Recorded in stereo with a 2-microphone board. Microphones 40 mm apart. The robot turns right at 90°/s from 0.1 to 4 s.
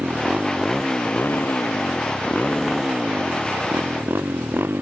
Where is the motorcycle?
55° right; by 4.8 s 60° right.